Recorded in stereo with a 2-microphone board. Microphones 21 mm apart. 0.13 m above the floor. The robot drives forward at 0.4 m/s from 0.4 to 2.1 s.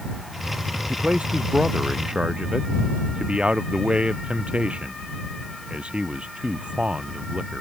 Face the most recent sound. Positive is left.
turn(degrees=-65)  # may be behind; listen again after turning